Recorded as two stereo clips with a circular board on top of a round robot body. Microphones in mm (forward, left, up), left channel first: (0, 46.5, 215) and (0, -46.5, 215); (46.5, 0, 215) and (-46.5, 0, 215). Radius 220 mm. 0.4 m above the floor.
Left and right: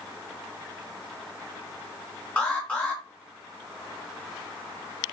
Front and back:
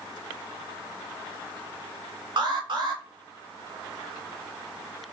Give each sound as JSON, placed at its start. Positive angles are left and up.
{"t": 2.4, "sound": "an alarm", "azimuth_deg": 160, "distance_m": 2.5}